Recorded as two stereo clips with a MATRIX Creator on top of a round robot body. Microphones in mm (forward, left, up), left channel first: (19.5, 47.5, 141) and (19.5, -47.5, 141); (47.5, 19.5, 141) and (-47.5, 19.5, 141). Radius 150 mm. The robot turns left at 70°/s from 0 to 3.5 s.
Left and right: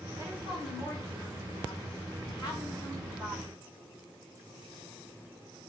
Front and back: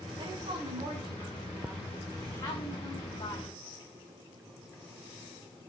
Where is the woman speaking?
150° right, 4.5 m; by 3.5 s 20° right, 4.5 m.